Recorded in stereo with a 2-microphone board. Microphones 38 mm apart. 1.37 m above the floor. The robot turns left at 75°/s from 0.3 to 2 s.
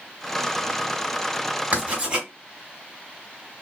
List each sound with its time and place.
1.7 s writing: 30° right (ahead or behind), 2.5 m; by 2.3 s 15° right (ahead or behind), 2.5 m